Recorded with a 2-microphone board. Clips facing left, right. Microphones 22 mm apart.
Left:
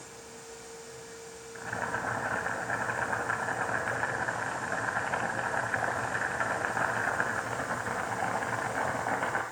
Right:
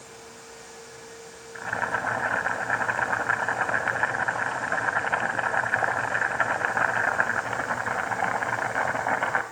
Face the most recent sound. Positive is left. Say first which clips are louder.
# right 6 dB
turn(degrees=-30)  # may be behind; listen again after turning